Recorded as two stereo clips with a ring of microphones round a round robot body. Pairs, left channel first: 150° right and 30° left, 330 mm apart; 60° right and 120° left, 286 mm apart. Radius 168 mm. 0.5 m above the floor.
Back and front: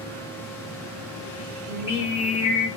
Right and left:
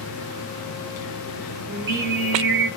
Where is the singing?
110° left, 1.7 m.